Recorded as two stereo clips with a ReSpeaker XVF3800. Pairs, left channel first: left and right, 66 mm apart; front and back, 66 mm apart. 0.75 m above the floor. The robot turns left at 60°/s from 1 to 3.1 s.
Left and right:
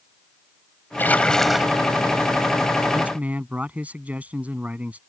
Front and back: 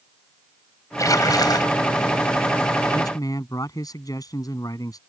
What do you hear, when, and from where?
1.0 s a splash: 30° left; by 1.8 s 15° right
2.9 s a man speaking: 10° right; by 5.0 s 20° right